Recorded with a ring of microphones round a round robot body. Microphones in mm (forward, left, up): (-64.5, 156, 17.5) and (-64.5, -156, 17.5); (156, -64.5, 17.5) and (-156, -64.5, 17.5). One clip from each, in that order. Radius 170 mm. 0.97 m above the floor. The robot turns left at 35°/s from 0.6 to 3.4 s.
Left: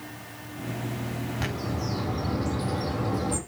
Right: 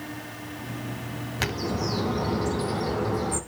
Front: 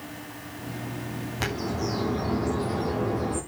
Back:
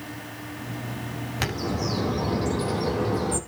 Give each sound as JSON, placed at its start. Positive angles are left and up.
{"t": 1.4, "sound": "a bird", "azimuth_deg": -120, "distance_m": 6.5}